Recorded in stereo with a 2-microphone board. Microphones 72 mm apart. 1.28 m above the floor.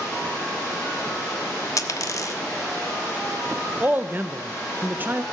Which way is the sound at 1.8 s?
50° left (ahead or behind).